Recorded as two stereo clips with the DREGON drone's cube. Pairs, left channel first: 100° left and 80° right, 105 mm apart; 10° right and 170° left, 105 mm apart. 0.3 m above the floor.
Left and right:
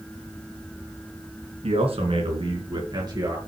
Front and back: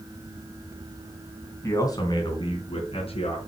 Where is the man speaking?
70° right, 3 m; by 3.4 s 25° right, 4 m.